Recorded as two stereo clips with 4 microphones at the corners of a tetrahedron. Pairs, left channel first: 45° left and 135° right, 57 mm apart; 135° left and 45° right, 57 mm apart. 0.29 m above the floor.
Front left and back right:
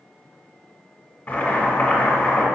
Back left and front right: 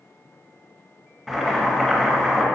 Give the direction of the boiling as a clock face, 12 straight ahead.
11 o'clock.